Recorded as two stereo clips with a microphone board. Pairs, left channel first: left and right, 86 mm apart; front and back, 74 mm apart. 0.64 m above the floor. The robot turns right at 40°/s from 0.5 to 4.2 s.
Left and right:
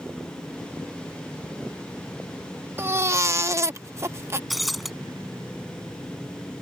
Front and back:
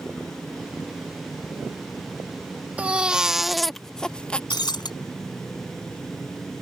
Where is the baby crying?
125° right; by 4.4 s 65° right.